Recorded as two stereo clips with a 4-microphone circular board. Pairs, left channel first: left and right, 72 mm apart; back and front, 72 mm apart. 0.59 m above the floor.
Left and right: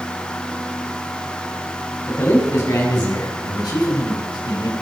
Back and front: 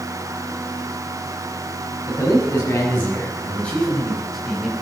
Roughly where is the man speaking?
Behind left.